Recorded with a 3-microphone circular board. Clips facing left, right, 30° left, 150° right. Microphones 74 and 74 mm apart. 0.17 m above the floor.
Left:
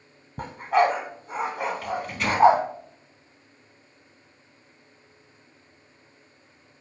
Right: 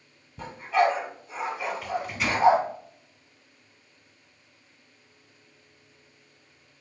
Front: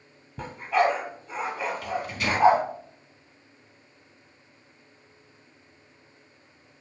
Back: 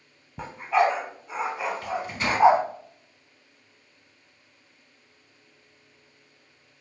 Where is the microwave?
175° right, 1.1 m.